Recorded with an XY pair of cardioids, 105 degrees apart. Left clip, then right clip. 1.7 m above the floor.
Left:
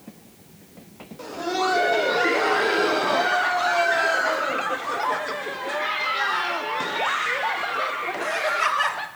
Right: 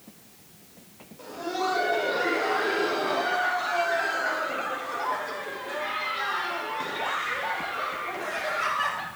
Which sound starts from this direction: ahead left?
Laughter, at 1.2 s.